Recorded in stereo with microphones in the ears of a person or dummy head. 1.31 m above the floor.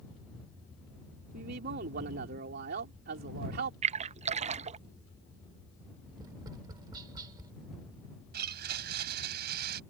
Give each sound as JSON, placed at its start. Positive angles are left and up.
{"t": 1.3, "sound": "a man speaking", "side_deg": -60}
{"t": 3.8, "sound": "a splash", "side_deg": -40}
{"t": 6.2, "sound": "tapping", "side_deg": -25}
{"t": 8.3, "sound": "a blender", "side_deg": -60}